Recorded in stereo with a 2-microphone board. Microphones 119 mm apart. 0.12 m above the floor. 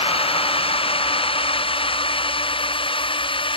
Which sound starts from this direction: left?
A drone, at 0.0 s.